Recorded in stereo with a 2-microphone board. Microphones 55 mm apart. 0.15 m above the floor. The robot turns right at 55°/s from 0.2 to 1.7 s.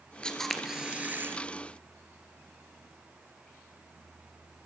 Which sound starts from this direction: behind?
A camera shutter, at 0.2 s.